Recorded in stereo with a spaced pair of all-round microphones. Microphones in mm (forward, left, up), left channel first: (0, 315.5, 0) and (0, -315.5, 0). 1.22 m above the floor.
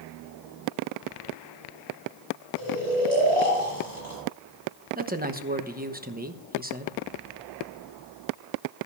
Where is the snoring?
60° right (ahead or behind), 6.5 m.